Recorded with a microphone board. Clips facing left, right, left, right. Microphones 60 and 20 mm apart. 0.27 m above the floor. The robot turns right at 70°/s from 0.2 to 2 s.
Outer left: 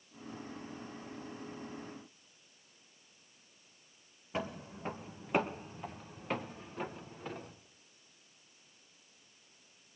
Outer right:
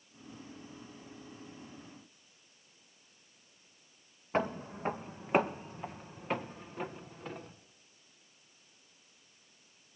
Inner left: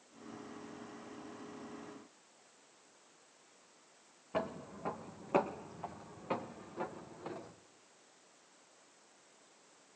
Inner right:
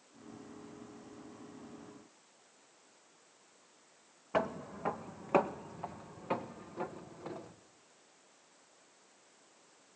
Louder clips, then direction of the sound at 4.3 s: Outer right 6 dB, inner right 5 dB; 45° right (ahead or behind).